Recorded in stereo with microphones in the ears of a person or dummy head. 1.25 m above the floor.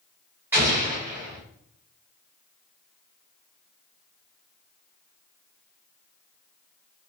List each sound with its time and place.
0.5 s an explosion: 5° right (ahead or behind), 1.6 m